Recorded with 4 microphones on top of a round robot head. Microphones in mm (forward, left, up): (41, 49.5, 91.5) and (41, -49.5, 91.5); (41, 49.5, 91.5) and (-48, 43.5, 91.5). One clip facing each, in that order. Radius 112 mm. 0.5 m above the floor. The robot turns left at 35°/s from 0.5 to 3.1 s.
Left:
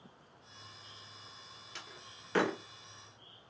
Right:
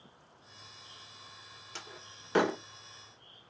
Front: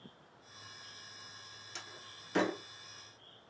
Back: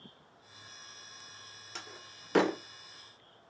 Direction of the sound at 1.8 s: 140° right.